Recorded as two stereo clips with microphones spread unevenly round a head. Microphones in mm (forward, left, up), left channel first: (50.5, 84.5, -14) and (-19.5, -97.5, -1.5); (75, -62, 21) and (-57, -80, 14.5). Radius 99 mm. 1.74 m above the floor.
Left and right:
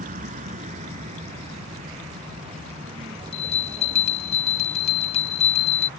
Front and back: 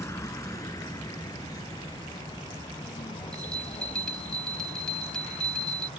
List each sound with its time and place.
0.0 s a vehicle: 60° right; by 6.0 s 45° right
3.3 s a bell: 75° left